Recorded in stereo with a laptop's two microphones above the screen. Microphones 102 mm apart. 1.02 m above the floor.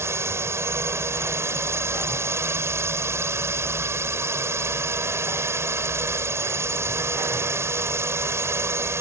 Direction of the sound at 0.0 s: 25° right (ahead or behind).